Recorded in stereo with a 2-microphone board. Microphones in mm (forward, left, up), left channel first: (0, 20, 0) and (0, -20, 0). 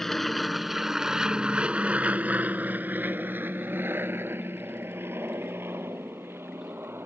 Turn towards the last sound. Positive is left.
turn(degrees=-80)